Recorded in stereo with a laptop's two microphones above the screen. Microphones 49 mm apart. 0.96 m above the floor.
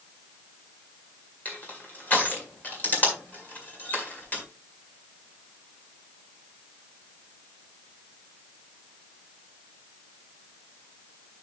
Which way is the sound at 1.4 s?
35° left (ahead or behind).